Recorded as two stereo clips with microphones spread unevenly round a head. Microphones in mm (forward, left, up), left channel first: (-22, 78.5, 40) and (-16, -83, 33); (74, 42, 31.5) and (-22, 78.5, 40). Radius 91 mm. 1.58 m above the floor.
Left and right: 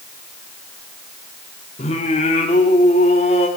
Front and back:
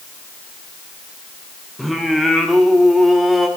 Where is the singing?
80° left, 1.3 m.